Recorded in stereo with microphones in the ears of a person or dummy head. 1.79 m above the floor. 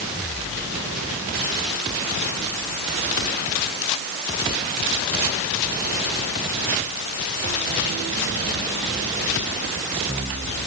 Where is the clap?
I don't hear a clap.